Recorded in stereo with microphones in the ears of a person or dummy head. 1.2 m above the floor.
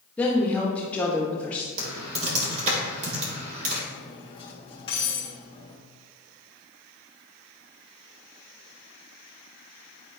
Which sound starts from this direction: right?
Typing on a keyboard, at 1.8 s.